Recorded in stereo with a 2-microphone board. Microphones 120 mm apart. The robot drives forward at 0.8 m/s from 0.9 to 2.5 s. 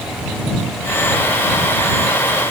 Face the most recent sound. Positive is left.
No sound to turn to.